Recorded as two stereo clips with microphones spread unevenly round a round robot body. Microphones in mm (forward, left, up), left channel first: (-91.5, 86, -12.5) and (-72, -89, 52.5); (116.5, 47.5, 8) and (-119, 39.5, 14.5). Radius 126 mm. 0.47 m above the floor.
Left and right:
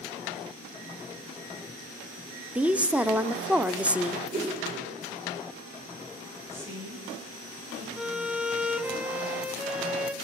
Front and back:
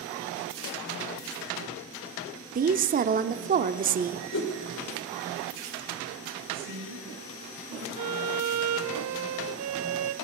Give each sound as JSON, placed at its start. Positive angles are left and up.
{"t": 2.5, "sound": "a woman speaking", "azimuth_deg": 165, "distance_m": 0.8}
{"t": 4.3, "sound": "a whoosh", "azimuth_deg": -10, "distance_m": 1.9}
{"t": 6.5, "sound": "a woman speaking", "azimuth_deg": -160, "distance_m": 8.0}
{"t": 8.0, "sound": "a violin", "azimuth_deg": -175, "distance_m": 0.8}